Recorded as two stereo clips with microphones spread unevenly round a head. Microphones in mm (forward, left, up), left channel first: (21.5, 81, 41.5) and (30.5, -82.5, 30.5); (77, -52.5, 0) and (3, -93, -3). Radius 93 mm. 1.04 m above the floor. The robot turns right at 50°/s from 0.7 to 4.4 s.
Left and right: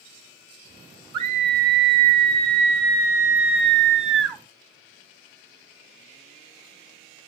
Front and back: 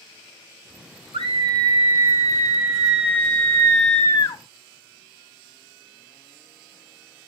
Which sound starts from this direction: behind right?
A scream, at 1.1 s.